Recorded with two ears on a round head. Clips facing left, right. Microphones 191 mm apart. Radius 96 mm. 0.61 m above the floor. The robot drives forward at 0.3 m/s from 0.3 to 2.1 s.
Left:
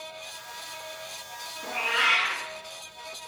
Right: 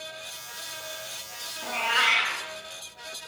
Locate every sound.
1.6 s a cat meowing: 80° right, 0.9 m; by 2.4 s 75° right (ahead or behind), 0.9 m